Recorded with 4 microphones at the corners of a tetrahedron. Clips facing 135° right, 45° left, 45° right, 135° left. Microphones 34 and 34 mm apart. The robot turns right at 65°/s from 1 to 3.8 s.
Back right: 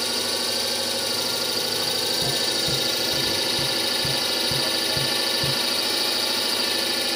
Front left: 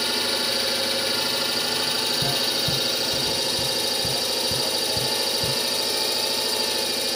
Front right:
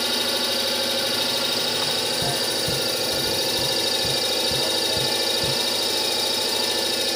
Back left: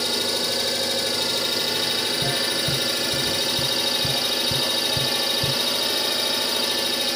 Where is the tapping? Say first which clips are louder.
Even, back left 1 dB; 40° left, 1.1 m; by 5.6 s 145° left, 1.1 m.